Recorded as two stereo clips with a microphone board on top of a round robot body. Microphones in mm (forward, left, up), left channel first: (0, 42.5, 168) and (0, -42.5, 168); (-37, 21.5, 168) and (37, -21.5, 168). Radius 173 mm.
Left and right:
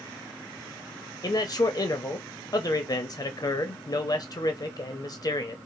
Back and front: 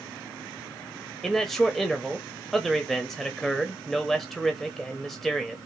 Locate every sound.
1.2 s a man speaking: 60° left, 0.9 m